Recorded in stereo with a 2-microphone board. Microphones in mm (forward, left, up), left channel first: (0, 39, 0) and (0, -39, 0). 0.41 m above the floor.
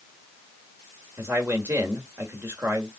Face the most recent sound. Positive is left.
turn(degrees=-30)  # may be behind; listen again after turning